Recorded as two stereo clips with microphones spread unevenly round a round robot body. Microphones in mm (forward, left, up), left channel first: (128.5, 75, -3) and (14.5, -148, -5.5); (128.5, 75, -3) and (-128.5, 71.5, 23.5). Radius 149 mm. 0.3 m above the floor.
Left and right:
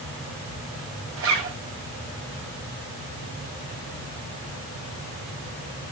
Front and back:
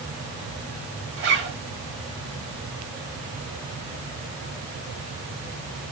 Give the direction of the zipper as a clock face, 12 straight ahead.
4 o'clock.